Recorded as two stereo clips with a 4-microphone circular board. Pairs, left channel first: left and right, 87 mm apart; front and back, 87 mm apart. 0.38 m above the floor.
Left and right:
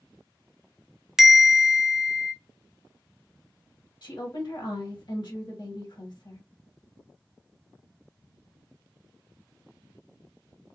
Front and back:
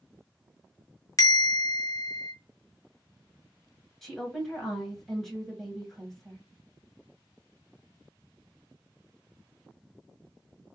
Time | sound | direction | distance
1.2 | a bell | 5° right | 0.6 m
4.0 | a woman speaking | 85° left | 1.9 m